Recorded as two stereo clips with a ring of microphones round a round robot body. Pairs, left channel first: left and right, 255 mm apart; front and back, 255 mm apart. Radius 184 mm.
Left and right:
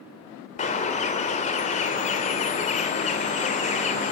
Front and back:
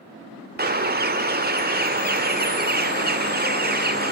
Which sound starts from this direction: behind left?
A bird, at 0.6 s.